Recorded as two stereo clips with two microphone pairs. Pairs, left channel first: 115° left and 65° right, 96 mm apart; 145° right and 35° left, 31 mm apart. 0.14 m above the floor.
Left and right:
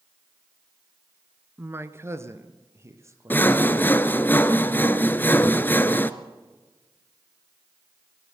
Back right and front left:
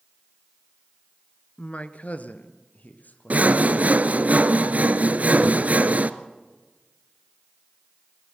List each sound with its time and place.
1.6 s a man speaking: 120° right, 1.4 m; by 4.3 s 125° right, 5 m
3.3 s sawing: 55° left, 1.0 m